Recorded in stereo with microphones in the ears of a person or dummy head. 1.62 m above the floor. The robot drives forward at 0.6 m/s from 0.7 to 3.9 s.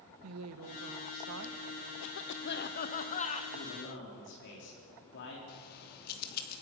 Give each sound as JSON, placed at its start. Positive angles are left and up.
{"t": 0.2, "sound": "a woman speaking", "side_deg": -80, "distance_m": 1.2}
{"t": 2.0, "sound": "a cough", "side_deg": 65, "distance_m": 0.7}
{"t": 3.5, "sound": "a man speaking", "side_deg": 55, "distance_m": 3.5}
{"t": 5.5, "sound": "keys jangling", "side_deg": 60, "distance_m": 2.0}